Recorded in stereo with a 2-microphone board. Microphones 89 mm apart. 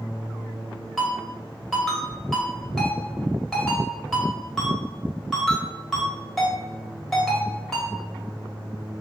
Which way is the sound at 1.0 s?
5° left (ahead or behind).